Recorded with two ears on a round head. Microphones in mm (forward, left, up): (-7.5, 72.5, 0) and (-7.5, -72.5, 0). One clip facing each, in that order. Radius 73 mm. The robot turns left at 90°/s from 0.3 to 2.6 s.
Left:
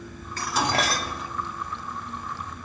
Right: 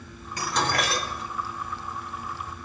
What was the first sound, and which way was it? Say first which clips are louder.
Dishes clattering: left 1 dB; 165° right.